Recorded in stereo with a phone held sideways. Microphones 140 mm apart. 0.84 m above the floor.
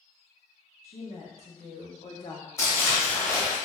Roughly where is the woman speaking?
Left.